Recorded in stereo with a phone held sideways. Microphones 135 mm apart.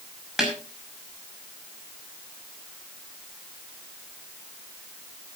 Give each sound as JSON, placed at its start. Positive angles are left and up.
{"t": 0.4, "sound": "a snare drum", "side_deg": -5, "distance_m": 5.5}